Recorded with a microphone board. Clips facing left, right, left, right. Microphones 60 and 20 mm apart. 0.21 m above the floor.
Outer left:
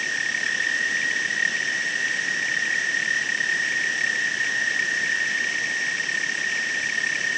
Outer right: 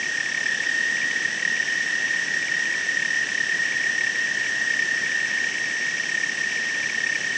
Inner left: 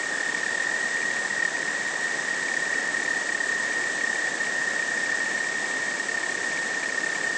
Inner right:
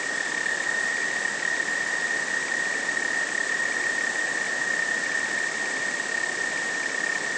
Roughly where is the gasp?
No gasp in this recording.